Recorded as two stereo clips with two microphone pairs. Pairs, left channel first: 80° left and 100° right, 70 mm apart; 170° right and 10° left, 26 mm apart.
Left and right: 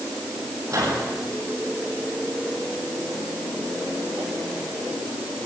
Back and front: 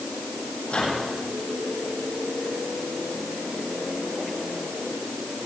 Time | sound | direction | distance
0.7 | a microwave | 130° right | 8.5 m